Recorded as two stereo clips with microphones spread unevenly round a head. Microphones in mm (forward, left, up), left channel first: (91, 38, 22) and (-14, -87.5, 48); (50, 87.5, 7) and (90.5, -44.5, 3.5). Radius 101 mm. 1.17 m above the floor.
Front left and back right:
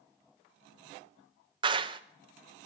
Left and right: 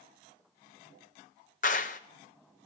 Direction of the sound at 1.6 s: 160° left.